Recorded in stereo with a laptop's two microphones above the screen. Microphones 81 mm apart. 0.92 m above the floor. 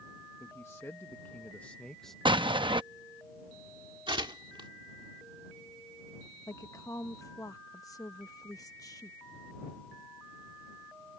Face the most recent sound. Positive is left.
turn(degrees=45)  # may be behind; listen again after turning